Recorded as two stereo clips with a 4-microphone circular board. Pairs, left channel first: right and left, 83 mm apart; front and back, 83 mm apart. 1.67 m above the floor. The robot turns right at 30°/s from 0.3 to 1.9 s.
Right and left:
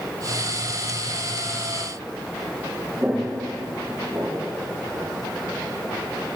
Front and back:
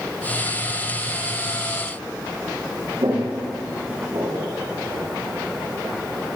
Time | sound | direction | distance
3.0 | footsteps | 155° left | 6 m